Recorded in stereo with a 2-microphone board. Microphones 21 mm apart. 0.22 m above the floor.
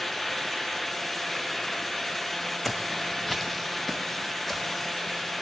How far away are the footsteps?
About 0.7 m.